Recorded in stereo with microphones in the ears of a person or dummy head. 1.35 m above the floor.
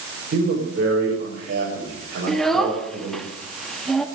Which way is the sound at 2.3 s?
Centre (ahead or behind).